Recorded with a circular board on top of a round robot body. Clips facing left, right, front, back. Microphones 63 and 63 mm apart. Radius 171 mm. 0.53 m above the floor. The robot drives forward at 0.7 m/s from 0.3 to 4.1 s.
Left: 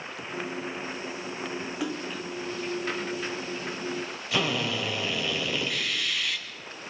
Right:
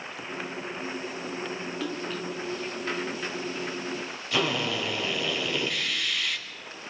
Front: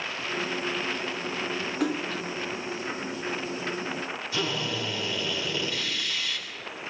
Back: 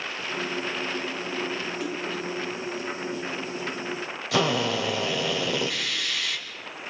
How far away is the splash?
About 2 m.